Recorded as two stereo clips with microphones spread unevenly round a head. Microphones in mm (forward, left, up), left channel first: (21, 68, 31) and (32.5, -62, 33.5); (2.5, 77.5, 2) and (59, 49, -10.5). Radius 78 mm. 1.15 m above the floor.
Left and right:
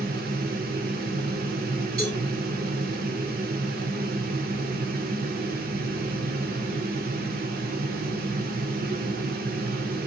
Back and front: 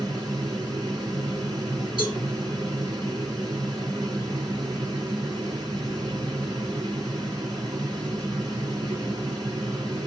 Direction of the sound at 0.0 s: 85° right.